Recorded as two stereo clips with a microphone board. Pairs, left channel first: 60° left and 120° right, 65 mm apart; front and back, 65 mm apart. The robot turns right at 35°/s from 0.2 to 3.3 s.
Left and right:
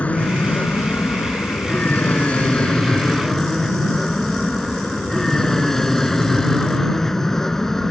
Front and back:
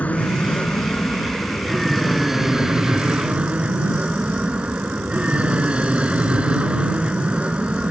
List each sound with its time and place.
0.0 s an aircraft: 25° left; by 7.9 s 135° left